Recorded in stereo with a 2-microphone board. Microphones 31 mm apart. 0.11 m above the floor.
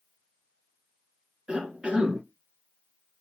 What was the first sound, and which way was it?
A cough, 35° right (ahead or behind).